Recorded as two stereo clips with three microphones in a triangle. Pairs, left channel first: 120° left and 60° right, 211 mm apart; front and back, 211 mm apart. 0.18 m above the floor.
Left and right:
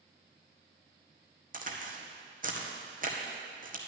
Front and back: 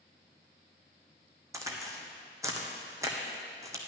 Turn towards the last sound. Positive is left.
turn(degrees=-105)